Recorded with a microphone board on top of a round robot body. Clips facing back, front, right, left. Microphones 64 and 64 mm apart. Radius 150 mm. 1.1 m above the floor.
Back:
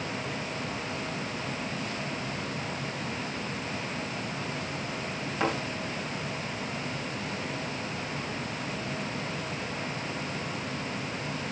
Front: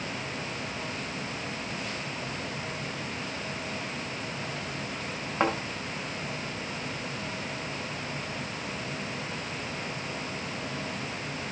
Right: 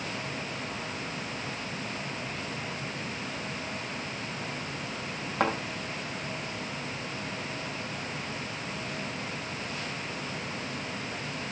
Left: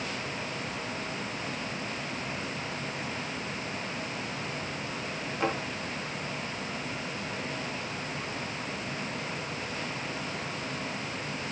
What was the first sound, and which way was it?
A thud, 50° right.